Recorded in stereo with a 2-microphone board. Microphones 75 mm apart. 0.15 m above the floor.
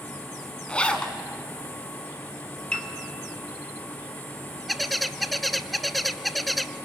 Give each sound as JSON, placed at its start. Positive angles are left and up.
{"t": 0.7, "sound": "a zipper", "side_deg": 15, "distance_m": 1.6}
{"t": 2.7, "sound": "a piano", "side_deg": 10, "distance_m": 2.0}
{"t": 4.7, "sound": "a bird", "side_deg": 0, "distance_m": 0.6}